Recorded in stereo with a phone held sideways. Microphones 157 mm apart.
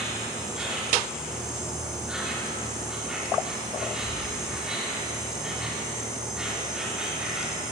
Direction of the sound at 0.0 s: 5° right (ahead or behind).